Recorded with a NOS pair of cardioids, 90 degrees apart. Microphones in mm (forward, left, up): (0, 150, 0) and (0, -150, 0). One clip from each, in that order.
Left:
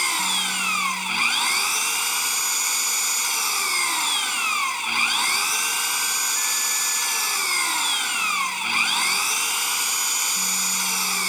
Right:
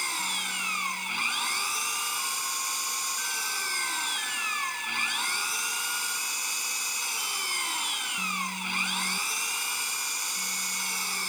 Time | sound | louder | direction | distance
0.0 | an engine running | left 7 dB | 50° left | ?